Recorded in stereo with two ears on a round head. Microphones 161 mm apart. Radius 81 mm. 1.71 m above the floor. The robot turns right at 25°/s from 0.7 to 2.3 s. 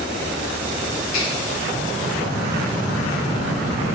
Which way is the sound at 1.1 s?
80° left.